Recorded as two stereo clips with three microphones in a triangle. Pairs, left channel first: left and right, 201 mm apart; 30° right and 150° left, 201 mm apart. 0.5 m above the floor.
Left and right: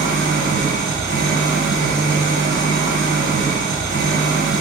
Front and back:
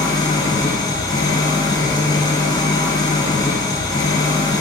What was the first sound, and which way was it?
An engine running, 100° right.